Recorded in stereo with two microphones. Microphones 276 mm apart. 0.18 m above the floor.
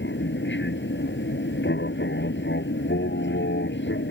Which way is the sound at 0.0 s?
40° left (ahead or behind).